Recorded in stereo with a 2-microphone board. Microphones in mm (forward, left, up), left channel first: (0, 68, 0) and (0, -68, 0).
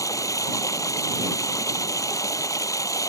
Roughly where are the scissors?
I don't hear scissors.